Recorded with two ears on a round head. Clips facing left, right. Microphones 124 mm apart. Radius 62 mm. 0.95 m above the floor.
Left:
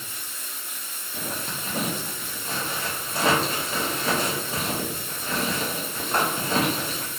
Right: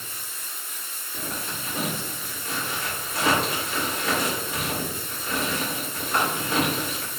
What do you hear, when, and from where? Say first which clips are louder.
0.0 s running water: even; 50° left (ahead or behind), 0.8 m
1.1 s a zipper: left 1 dB; 25° left (ahead or behind), 0.6 m